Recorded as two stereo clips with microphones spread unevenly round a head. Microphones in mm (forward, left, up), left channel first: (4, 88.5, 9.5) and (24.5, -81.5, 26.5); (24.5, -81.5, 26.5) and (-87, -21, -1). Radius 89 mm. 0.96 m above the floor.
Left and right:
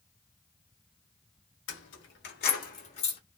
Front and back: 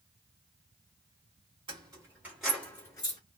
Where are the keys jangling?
85° left, 1.0 m; by 3.2 s 35° left, 1.0 m.